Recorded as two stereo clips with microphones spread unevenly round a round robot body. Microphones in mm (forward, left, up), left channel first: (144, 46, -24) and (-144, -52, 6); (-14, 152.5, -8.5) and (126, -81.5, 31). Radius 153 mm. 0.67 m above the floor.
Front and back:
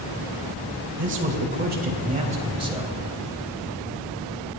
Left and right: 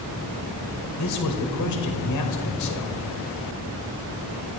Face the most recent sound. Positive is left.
turn(degrees=120)